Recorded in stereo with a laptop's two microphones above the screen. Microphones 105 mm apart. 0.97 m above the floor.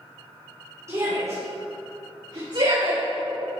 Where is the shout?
25° right (ahead or behind), 3 m; by 3.0 s 55° right (ahead or behind), 2.5 m.